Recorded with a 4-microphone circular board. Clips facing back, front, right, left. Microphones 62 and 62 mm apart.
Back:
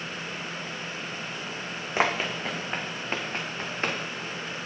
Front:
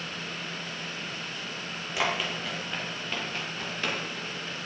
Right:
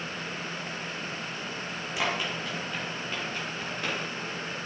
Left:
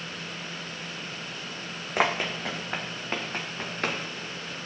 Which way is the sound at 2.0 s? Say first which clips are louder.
Back 3 dB, left 5 dB; 125° left.